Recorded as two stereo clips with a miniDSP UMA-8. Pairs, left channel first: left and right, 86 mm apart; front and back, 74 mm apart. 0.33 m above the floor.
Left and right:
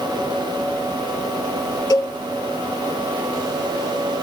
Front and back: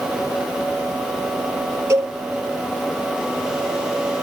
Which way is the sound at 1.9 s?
130° left.